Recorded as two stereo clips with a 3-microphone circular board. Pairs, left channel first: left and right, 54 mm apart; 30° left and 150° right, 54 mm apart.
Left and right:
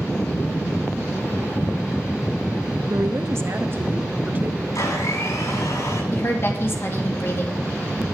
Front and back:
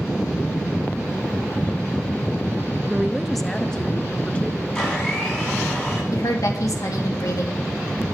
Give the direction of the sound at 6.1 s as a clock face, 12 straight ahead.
11 o'clock.